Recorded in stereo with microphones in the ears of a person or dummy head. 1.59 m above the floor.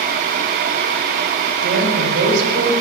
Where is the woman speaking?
65° right (ahead or behind), 5.5 m.